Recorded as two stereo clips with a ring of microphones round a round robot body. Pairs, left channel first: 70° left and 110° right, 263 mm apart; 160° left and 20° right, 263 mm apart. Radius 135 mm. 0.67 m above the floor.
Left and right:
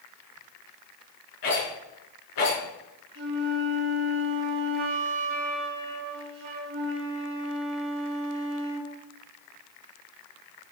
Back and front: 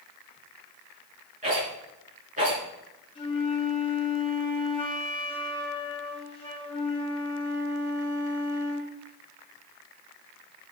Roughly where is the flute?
Behind right.